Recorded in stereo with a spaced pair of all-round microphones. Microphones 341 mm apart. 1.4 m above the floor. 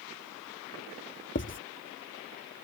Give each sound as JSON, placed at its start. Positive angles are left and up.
{"t": 1.4, "sound": "writing", "side_deg": 35}